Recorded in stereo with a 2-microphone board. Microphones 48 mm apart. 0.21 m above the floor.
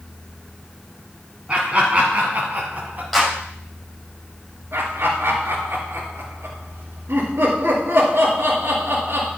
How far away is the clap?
About 6 m.